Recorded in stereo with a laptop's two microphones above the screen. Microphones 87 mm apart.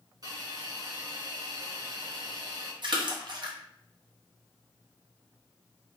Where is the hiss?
45° right (ahead or behind), 0.8 m.